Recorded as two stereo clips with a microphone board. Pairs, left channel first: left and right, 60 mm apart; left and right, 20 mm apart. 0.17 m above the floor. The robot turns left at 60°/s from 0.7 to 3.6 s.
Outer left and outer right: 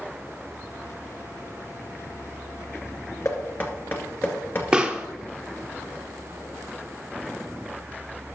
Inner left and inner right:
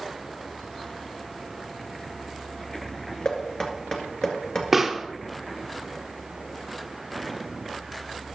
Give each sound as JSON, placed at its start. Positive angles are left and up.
{"t": 3.2, "sound": "knocking", "side_deg": 50, "distance_m": 2.0}
{"t": 4.7, "sound": "a pop", "side_deg": -15, "distance_m": 1.2}